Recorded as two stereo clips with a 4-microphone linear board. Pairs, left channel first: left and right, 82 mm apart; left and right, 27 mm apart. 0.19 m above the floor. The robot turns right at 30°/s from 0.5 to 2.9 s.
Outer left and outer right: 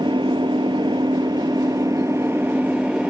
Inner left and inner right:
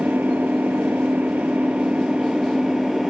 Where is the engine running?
90° right; by 3.1 s 15° right.